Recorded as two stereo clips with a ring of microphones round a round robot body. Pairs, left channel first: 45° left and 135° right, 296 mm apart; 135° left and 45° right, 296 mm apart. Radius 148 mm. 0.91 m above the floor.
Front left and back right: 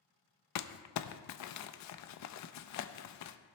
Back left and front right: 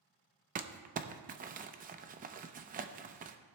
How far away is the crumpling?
About 0.6 m.